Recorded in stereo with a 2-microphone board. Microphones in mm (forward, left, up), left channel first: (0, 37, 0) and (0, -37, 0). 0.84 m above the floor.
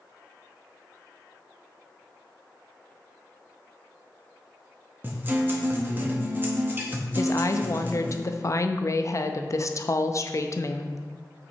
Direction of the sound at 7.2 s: 45° left (ahead or behind).